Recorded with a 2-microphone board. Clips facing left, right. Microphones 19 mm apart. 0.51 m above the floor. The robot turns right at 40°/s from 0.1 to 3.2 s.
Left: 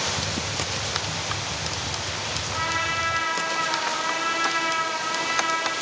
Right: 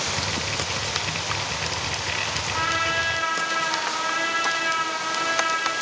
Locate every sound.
2.5 s a trumpet: 45° right (ahead or behind), 1.5 m; by 5.7 s 35° right (ahead or behind), 1.5 m